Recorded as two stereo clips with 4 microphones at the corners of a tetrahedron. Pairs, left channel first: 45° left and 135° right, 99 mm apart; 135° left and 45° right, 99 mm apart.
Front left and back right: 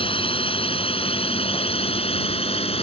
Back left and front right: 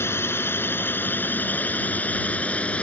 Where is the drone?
70° left; by 2.8 s 55° left.